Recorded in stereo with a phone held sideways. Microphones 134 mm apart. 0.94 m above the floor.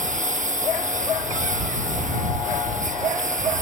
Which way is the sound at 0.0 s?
65° right (ahead or behind).